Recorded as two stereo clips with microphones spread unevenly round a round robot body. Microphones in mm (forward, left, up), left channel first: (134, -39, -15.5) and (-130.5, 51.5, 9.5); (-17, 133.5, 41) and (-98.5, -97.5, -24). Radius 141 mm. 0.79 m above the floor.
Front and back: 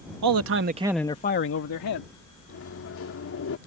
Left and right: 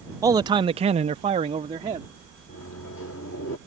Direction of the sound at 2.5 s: 20° left.